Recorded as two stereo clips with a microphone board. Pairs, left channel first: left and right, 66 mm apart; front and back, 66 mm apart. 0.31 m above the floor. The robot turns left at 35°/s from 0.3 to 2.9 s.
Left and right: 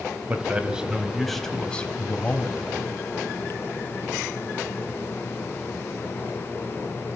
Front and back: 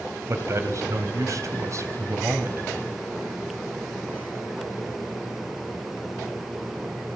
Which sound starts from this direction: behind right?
A man speaking, at 0.3 s.